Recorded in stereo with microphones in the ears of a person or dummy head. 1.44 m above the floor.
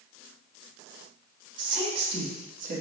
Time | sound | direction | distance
1.6 | a woman speaking | 20° right (ahead or behind) | 2.5 m